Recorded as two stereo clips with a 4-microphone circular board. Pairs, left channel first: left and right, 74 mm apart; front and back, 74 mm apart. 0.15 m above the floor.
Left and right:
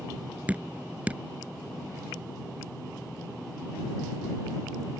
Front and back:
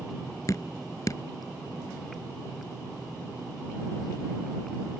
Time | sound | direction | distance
0.5 | dripping | 25° right | ?